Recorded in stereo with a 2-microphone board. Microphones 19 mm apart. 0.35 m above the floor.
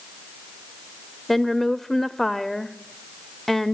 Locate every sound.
1.3 s a woman speaking: 10° left (ahead or behind), 0.8 m